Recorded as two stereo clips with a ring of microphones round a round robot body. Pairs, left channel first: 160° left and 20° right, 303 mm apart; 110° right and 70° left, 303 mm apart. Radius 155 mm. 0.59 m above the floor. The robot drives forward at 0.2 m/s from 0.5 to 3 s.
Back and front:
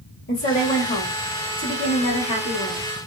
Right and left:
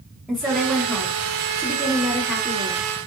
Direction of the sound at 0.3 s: 155° left.